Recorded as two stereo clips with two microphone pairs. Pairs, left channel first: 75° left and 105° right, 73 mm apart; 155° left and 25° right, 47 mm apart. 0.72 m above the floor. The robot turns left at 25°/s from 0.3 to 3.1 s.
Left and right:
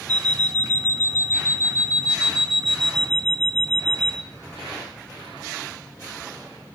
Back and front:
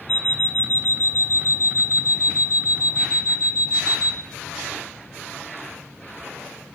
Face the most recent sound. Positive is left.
turn(degrees=150)